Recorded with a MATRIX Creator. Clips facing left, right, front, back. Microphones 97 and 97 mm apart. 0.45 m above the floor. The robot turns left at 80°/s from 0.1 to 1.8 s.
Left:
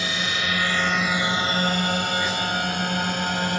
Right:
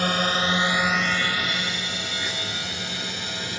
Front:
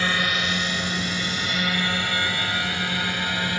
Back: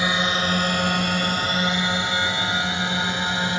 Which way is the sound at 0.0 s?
110° right.